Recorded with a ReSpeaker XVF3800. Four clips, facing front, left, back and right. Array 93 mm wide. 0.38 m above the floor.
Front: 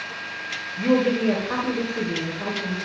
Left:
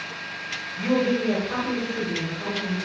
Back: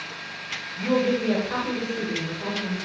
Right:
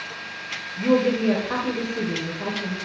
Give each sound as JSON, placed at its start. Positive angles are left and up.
{"t": 0.8, "sound": "a woman speaking", "azimuth_deg": -40, "distance_m": 1.7}